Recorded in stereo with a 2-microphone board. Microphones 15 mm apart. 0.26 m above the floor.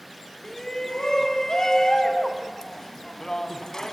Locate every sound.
0.4 s a shout: 35° left (ahead or behind), 1.7 m